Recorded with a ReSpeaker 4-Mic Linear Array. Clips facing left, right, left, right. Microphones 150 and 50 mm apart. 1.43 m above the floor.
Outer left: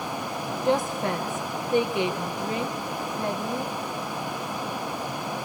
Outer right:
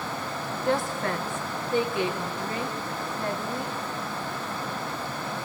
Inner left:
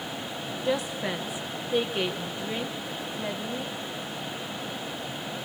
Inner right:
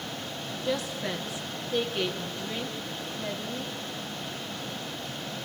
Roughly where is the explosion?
I don't hear an explosion.